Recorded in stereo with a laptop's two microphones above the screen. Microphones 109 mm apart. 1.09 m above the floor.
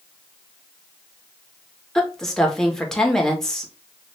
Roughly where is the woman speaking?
Centre.